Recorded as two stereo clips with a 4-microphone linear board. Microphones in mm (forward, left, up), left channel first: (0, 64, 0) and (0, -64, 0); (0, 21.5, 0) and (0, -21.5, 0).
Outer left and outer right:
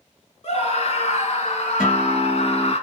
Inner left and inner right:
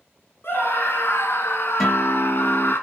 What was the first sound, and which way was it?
A scream, 50° left (ahead or behind).